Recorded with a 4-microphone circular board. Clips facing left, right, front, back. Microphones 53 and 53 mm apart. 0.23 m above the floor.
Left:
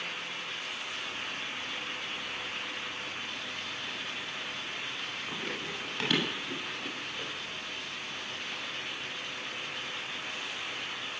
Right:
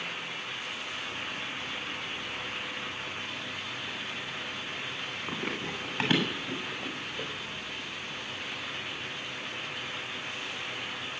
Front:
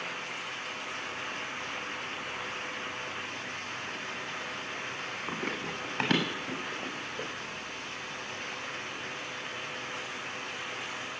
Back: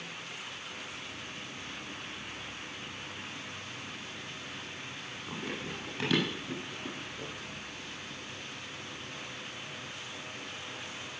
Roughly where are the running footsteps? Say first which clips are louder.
Right 4 dB, front 2 dB; ahead right.